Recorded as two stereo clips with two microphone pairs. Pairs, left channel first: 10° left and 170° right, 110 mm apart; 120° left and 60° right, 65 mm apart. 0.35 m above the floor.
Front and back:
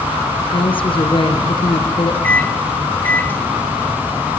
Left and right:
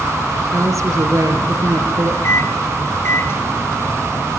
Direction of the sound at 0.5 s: 25° right.